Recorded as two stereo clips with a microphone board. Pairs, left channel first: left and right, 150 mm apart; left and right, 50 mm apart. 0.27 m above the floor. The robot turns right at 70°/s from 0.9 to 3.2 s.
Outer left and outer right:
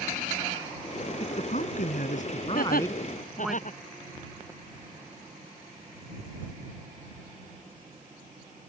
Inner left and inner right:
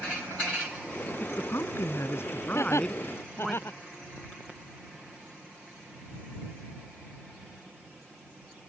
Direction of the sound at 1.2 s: 45° left.